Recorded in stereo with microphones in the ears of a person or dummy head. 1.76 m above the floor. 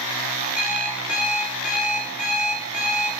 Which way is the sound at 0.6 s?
10° right (ahead or behind).